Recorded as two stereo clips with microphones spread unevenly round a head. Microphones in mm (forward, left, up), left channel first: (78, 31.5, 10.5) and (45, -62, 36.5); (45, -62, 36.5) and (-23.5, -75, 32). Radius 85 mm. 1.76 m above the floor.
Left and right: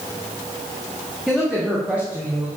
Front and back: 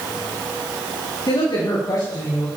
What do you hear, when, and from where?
1.3 s a woman speaking: 25° right, 2.5 m; by 2.5 s 35° right, 2.5 m